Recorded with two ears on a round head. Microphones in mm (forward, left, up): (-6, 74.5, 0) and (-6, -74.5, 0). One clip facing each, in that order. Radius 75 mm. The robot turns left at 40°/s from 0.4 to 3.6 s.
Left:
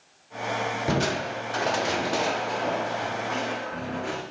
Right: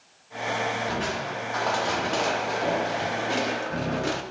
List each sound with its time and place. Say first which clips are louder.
0.9 s crushing: left 3 dB; 60° left, 0.7 m; by 4.2 s 50° right, 0.7 m